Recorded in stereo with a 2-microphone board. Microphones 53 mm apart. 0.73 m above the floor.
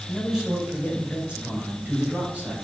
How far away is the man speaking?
About 3 m.